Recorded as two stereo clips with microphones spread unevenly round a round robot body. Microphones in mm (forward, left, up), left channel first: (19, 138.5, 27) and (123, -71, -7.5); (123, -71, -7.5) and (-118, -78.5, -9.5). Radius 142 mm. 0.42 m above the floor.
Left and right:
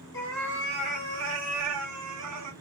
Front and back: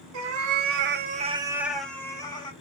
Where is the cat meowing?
165° right, 0.8 m; by 2.5 s 70° right, 1.1 m.